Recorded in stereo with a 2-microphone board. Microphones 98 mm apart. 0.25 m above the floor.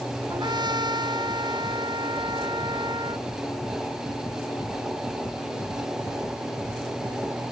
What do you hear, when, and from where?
0.3 s a trumpet: 50° right (ahead or behind)